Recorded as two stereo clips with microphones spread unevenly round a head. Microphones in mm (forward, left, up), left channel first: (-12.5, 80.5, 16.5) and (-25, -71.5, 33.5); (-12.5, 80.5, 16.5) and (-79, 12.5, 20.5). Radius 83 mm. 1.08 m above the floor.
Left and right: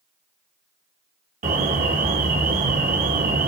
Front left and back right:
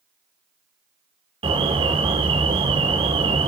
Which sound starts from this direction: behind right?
An alarm, at 1.4 s.